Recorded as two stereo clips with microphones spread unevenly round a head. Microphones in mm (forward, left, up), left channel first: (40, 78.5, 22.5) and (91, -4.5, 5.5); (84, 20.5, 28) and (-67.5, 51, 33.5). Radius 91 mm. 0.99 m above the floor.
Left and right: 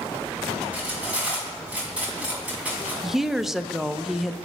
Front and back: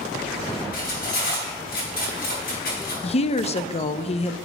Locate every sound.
0.7 s cutlery clinking: 20° left, 5.5 m
3.0 s a woman speaking: 15° left, 0.6 m